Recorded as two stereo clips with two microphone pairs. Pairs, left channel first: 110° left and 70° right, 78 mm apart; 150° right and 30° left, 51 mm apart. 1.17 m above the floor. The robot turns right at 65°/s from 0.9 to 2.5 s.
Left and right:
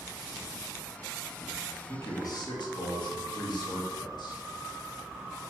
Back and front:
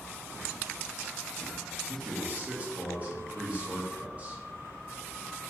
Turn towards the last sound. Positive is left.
turn(degrees=90)